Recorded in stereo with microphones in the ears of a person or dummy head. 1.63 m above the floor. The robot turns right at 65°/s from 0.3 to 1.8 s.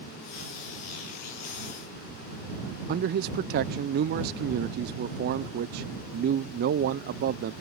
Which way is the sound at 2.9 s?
50° right (ahead or behind).